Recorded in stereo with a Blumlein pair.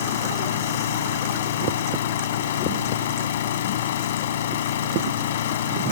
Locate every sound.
0.0 s an engine running: 60° left